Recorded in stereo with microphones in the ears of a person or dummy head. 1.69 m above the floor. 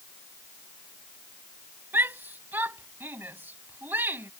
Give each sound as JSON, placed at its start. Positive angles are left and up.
{"t": 1.9, "sound": "a shout", "side_deg": -10}